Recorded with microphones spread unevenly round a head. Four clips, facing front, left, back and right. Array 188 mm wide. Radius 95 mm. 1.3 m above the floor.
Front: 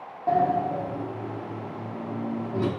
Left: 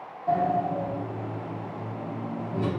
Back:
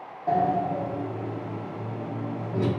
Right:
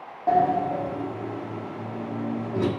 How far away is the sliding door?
About 1.8 m.